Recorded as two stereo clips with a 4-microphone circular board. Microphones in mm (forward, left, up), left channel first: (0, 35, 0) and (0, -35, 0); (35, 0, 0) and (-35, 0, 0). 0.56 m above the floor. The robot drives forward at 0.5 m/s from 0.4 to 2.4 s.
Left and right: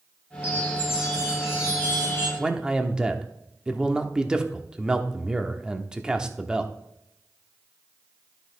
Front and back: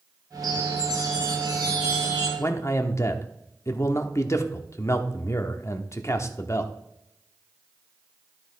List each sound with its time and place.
0.4 s a chime: 160° right, 3.5 m; by 2.3 s 165° right, 4.5 m
2.4 s a man speaking: 15° right, 1.0 m